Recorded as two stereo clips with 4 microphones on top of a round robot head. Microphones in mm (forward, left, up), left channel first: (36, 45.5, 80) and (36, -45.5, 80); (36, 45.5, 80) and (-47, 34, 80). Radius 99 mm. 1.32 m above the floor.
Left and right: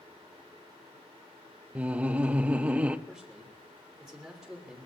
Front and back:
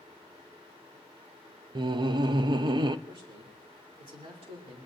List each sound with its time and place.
1.8 s laughter: 165° right, 0.6 m
3.1 s a man speaking: straight behind, 3 m